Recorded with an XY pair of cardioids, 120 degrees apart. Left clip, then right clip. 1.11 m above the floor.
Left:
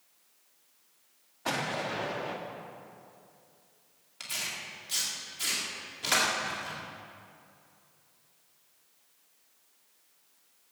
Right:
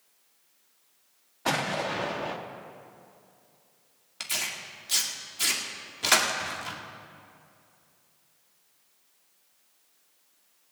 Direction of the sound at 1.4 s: 30° right.